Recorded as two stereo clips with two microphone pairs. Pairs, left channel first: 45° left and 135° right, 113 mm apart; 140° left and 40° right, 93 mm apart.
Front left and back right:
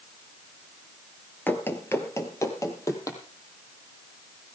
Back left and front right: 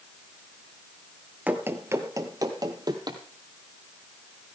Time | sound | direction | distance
1.5 | running footsteps | 5° left | 1.7 m